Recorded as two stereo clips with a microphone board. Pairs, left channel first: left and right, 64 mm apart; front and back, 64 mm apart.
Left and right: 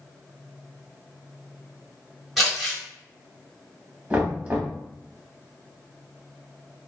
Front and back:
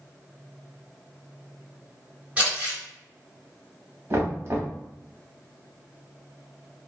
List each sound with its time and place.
2.4 s crumpling: 170° right, 1.7 m
4.1 s knocking: 150° right, 1.0 m